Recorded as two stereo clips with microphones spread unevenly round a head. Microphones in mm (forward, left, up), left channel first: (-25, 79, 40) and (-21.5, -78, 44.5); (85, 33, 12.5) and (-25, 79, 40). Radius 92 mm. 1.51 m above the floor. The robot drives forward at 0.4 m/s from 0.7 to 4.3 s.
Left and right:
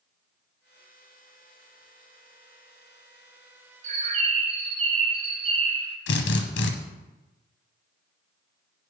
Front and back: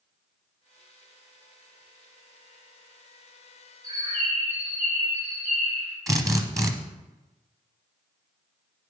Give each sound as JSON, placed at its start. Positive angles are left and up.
{"t": 3.8, "sound": "a bird", "azimuth_deg": -135, "distance_m": 0.7}
{"t": 6.1, "sound": "a drill", "azimuth_deg": 95, "distance_m": 1.0}